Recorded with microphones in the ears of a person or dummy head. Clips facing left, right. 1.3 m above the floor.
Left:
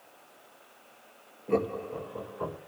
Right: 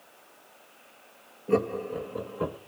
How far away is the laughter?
About 1.3 m.